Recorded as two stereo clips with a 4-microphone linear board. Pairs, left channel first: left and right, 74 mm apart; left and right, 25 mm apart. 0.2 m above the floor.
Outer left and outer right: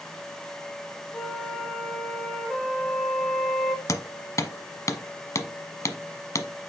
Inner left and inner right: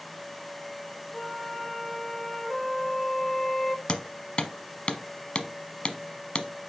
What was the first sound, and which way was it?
A flute, centre (ahead or behind).